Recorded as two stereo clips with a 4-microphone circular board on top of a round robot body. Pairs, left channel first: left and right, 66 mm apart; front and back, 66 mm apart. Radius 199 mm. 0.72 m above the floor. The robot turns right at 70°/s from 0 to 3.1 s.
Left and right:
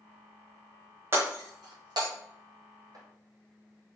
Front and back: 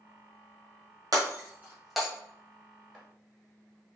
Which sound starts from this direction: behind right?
Breaking glass, at 1.1 s.